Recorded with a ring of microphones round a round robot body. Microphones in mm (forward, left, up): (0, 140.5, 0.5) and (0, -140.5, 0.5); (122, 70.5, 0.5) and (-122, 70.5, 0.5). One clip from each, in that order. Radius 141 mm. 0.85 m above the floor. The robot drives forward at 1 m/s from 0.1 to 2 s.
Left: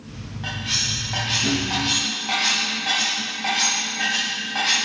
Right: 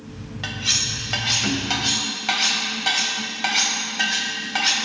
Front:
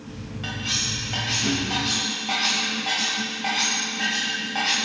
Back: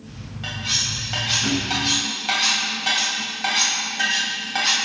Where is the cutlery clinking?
90° right, 2.5 m; by 4.8 s 125° right, 3 m.